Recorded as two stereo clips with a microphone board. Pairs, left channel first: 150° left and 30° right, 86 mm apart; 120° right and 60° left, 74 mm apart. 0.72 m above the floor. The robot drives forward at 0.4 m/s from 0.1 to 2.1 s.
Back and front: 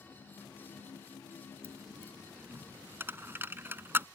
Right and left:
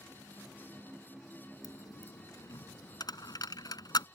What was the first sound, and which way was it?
A dropped coin, 90° right.